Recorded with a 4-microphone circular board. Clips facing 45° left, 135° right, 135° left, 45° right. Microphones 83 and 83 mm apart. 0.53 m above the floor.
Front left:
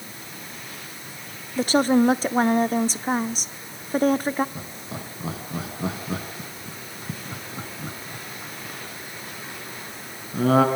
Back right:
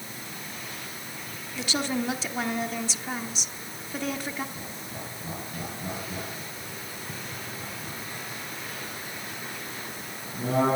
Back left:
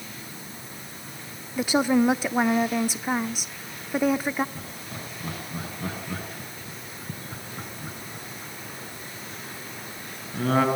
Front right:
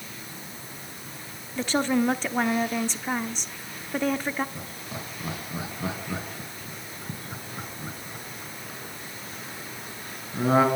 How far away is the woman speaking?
About 0.8 m.